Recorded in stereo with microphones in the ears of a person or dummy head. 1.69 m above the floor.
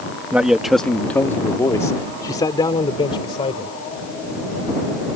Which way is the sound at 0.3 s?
5° right (ahead or behind).